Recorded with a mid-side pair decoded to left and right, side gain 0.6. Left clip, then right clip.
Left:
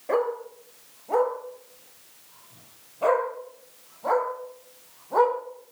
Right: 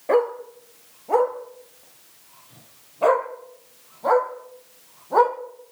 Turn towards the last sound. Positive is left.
turn(degrees=-25)